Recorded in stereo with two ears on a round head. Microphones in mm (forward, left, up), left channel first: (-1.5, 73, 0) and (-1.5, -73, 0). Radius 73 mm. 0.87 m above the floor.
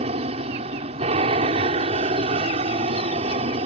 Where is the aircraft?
40° right (ahead or behind).